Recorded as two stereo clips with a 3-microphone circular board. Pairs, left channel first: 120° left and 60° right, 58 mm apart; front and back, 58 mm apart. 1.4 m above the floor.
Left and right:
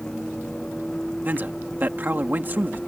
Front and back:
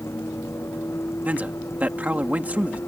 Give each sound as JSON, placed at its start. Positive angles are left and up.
{"t": 0.0, "sound": "a vehicle", "azimuth_deg": 40}
{"t": 1.2, "sound": "a man speaking", "azimuth_deg": -115}